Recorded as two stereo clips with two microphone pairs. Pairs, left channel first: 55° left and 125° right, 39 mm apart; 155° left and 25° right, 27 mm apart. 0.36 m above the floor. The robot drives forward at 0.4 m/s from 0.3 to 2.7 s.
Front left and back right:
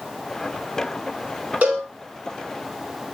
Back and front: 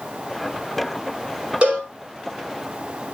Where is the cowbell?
75° right, 5 m.